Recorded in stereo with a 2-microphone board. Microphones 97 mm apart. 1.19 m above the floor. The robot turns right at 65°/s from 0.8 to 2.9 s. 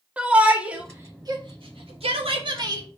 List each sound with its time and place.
0.2 s a shout: 15° right (ahead or behind), 2.5 m; by 2.9 s 35° right (ahead or behind), 2.5 m